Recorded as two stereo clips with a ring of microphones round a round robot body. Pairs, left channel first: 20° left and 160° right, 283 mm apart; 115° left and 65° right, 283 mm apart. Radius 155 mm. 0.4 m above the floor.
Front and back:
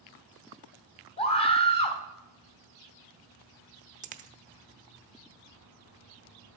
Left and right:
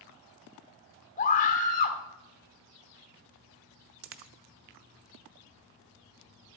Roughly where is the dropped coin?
Right.